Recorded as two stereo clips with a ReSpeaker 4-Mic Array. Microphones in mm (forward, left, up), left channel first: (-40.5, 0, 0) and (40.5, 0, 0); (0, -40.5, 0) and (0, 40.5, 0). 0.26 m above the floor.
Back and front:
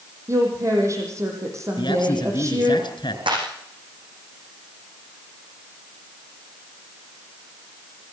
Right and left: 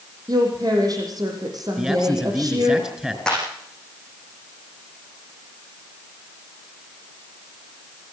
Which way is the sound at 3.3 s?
10° right.